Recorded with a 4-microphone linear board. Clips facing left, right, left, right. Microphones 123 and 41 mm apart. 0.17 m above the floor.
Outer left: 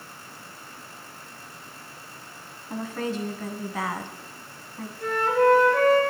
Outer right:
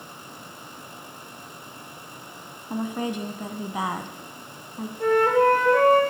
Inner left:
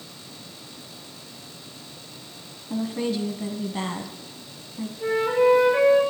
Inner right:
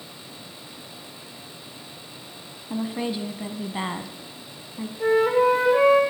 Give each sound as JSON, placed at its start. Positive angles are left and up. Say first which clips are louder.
{"t": 2.7, "sound": "a woman speaking", "louder": "outer right 2 dB, inner left 1 dB", "side_deg": -20, "distance_m": 1.1}
{"t": 5.0, "sound": "a flute", "louder": "outer right 3 dB, inner right 2 dB", "side_deg": -60, "distance_m": 4.5}